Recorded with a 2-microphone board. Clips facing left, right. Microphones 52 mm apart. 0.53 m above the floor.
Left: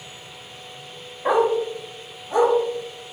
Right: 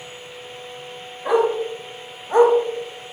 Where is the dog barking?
30° left (ahead or behind), 0.6 m; by 2.5 s 45° right (ahead or behind), 0.7 m.